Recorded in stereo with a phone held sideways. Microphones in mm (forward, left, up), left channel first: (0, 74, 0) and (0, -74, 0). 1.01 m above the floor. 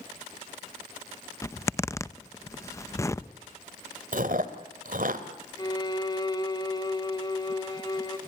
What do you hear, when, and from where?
1.4 s a zipper: 20° left (ahead or behind), 0.7 m
4.1 s chewing: 70° right (ahead or behind), 2.0 m
5.6 s a violin: 30° left (ahead or behind), 1.8 m